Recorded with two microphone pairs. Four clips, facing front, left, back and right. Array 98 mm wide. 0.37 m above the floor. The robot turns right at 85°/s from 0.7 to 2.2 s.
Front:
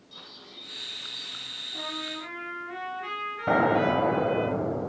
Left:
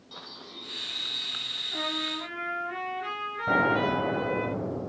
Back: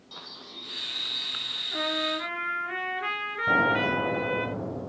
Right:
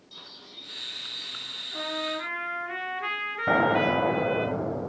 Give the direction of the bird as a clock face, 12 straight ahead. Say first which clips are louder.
Left 6 dB, back 4 dB; 8 o'clock.